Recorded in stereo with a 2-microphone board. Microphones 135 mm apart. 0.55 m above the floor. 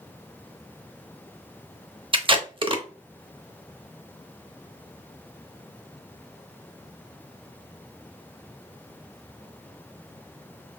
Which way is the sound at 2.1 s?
40° right (ahead or behind).